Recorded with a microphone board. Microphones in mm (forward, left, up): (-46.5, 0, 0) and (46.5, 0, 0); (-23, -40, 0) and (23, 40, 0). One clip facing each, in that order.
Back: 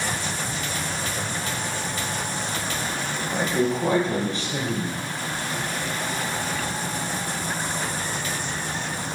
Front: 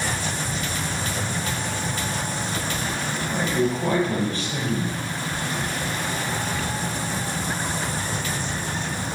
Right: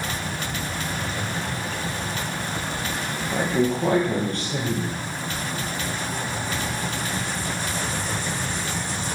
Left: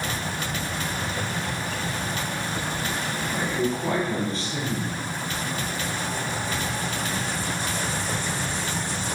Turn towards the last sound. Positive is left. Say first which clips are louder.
# even, right 5 dB
turn(degrees=-115)